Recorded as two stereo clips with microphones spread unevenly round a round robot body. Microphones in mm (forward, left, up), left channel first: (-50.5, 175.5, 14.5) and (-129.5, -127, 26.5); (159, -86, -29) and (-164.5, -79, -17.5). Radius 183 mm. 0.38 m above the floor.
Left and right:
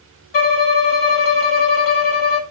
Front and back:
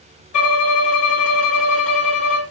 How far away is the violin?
About 0.8 m.